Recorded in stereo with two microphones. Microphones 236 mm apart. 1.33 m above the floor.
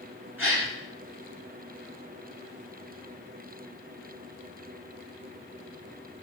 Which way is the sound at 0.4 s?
10° right (ahead or behind).